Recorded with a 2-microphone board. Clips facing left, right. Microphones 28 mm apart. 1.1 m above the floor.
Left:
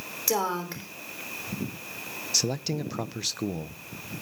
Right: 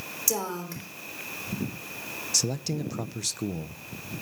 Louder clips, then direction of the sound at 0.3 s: Left 4 dB; 30° left (ahead or behind).